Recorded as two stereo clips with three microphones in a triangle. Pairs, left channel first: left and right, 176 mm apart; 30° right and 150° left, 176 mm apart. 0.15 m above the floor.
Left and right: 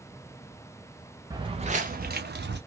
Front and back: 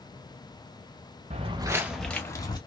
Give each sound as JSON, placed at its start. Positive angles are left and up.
{"t": 1.3, "sound": "footsteps", "azimuth_deg": -160, "distance_m": 0.8}